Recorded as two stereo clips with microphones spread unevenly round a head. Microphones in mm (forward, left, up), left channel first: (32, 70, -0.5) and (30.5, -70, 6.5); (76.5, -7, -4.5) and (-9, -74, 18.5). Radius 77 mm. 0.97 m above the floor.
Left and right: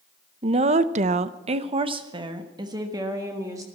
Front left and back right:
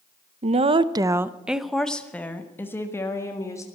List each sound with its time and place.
0.4 s a woman speaking: 135° right, 0.7 m; by 3.6 s 25° right, 2 m